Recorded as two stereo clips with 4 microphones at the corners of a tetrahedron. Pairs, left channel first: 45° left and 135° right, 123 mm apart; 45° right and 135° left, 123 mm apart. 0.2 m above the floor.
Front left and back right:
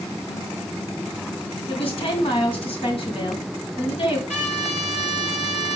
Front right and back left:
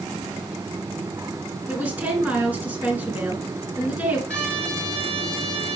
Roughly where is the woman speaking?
Ahead left.